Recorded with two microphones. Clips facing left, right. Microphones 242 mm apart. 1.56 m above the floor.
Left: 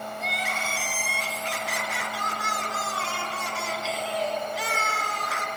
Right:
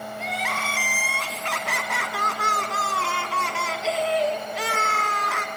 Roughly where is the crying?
Right.